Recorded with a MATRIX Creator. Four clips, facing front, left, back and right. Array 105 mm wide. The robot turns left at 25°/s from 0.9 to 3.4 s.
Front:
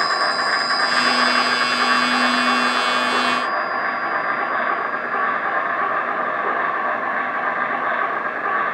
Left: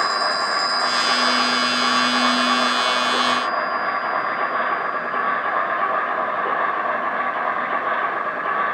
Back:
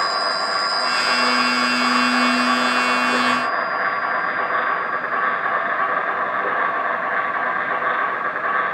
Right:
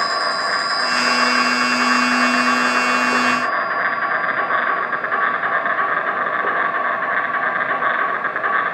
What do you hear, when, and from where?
0.0 s an insect: 30° right, 2 m; by 8.8 s 95° right, 2 m